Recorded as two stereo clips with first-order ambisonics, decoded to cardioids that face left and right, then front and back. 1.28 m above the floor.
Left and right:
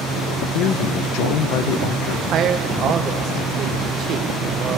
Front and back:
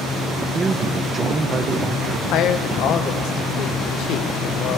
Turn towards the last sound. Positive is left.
turn(degrees=-40)